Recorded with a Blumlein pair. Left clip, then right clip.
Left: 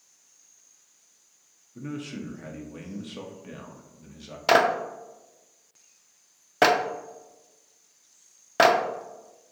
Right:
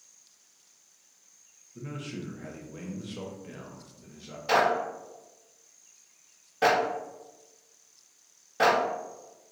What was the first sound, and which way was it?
A man speaking, 10° left.